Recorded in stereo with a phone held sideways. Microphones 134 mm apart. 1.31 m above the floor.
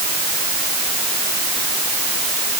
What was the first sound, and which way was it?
Only background noise.